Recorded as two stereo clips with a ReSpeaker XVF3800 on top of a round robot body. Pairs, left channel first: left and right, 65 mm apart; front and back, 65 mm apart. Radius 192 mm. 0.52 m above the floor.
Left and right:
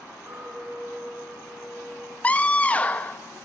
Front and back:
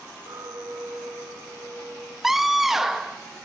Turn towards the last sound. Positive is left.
turn(degrees=100)